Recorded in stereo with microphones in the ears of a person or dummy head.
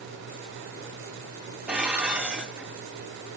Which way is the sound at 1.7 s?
10° right (ahead or behind).